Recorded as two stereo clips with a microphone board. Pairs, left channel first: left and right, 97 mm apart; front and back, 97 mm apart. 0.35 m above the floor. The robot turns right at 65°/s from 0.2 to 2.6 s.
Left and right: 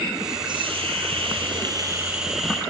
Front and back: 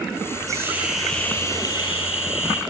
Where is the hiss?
125° right, 5.5 m; by 2.6 s 15° left, 5.5 m.